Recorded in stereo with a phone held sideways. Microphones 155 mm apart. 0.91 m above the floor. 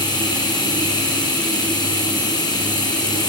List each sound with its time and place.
0.0 s running water: 25° left (ahead or behind), 6 m